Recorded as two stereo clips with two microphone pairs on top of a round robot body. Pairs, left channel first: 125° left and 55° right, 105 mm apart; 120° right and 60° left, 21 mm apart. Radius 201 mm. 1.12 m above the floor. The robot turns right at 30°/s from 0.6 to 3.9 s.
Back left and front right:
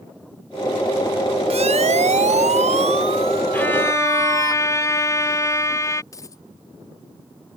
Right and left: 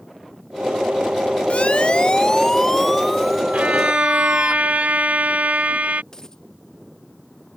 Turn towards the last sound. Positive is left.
turn(degrees=-170)